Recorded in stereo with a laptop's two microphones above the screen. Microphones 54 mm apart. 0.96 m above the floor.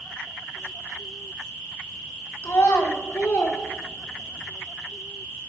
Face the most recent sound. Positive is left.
turn(degrees=40)  # may be behind; listen again after turning